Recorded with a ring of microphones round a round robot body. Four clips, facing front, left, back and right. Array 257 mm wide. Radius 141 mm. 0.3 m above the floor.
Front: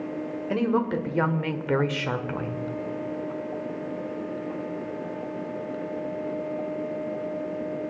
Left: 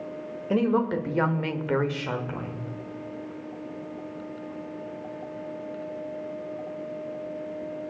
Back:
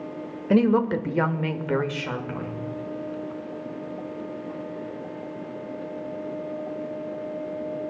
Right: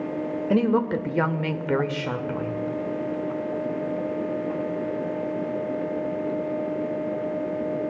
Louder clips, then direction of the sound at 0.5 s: Right 1 dB, back 5 dB; 160° right.